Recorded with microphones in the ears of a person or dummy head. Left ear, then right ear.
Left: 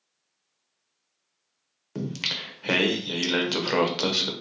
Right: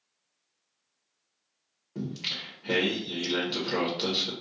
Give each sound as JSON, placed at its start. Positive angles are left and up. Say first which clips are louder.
{"t": 1.9, "sound": "singing", "louder": "left 4 dB", "side_deg": 65, "distance_m": 0.7}